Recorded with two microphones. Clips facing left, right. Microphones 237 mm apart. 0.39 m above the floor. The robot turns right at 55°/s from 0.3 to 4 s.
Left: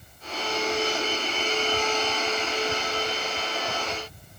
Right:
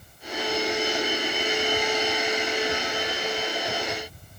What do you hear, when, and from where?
Only background noise.